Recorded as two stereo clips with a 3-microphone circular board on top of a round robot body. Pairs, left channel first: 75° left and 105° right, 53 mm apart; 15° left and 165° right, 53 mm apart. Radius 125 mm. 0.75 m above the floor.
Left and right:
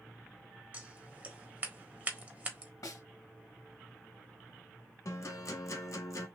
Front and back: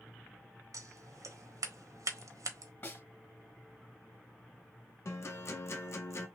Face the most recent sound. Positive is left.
turn(degrees=50)